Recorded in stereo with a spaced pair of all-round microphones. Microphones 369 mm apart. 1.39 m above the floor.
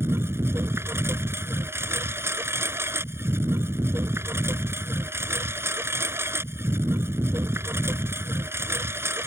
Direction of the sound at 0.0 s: 5° right (ahead or behind).